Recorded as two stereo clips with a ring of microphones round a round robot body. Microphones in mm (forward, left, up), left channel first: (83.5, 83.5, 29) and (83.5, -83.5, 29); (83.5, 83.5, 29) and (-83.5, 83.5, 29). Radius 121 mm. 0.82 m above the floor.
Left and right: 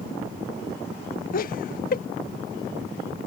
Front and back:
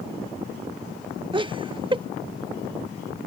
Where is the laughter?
125° left.